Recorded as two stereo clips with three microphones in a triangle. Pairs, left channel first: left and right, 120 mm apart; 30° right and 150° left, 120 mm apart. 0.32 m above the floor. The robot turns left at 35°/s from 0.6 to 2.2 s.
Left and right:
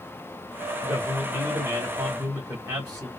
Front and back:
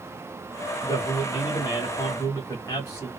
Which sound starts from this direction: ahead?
A man speaking, at 0.8 s.